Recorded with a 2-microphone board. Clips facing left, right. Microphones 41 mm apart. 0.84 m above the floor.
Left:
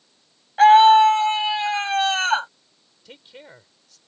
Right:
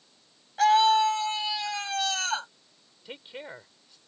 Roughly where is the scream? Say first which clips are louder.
Left 9 dB; left.